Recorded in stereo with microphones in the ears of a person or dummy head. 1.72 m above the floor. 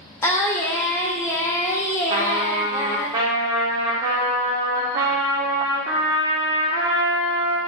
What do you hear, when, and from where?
0.2 s singing: 10° left (ahead or behind), 0.7 m
2.1 s a trumpet: 30° right (ahead or behind), 0.6 m